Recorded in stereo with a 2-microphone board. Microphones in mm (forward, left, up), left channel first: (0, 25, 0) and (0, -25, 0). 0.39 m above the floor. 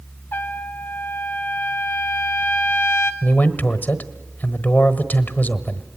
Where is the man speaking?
40° left (ahead or behind), 1.3 m.